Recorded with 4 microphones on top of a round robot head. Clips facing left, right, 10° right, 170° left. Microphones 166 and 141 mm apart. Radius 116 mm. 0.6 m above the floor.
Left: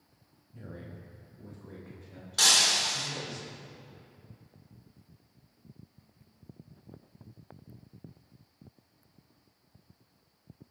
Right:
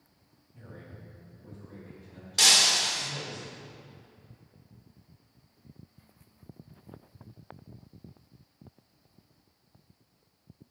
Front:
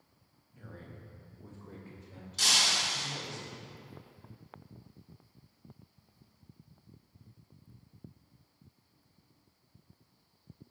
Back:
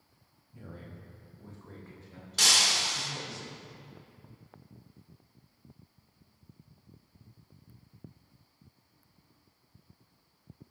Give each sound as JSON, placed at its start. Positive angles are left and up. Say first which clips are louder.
{"t": 0.5, "sound": "a man speaking", "louder": "left 3 dB, back 2 dB", "azimuth_deg": 130, "distance_m": 0.9}
{"t": 2.4, "sound": "breaking glass", "louder": "right 1 dB, back 2 dB", "azimuth_deg": -160, "distance_m": 1.1}